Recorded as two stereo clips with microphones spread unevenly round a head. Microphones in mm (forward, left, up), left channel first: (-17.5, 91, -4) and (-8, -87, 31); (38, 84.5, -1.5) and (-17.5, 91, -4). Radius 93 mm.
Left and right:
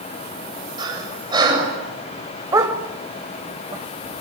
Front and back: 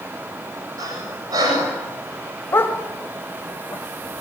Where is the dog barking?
35° right, 1.8 m.